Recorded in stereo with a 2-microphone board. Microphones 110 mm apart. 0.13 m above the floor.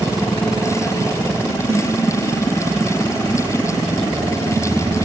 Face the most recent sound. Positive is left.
turn(degrees=-65)  # may be behind; listen again after turning